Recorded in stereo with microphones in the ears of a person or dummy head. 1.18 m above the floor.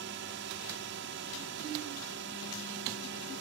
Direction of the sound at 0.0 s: 45° right (ahead or behind).